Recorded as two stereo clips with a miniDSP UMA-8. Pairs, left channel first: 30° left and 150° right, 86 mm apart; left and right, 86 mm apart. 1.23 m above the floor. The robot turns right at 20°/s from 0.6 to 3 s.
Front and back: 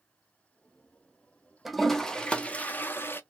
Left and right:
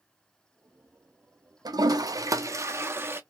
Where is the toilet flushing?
60° right, 0.6 m; by 3.2 s 35° right, 0.6 m.